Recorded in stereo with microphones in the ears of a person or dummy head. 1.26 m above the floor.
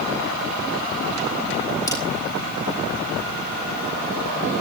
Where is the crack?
15° left (ahead or behind), 3.5 m.